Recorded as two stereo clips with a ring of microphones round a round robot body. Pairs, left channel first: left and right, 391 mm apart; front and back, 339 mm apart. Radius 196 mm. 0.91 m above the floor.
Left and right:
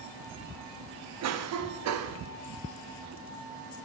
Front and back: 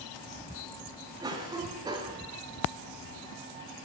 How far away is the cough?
About 0.7 m.